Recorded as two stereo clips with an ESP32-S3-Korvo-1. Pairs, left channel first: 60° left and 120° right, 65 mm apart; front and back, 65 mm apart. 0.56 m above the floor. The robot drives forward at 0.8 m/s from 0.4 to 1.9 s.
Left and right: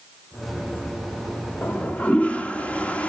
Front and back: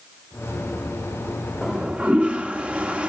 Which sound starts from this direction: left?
A toilet flushing, at 1.6 s.